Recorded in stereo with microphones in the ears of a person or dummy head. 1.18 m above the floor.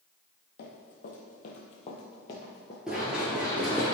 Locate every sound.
0.6 s running footsteps: 50° left (ahead or behind), 1.8 m; by 2.8 s 10° left (ahead or behind), 1.1 m
2.9 s running footsteps: centre (ahead or behind), 1.3 m; by 4.0 s 5° right (ahead or behind), 1.1 m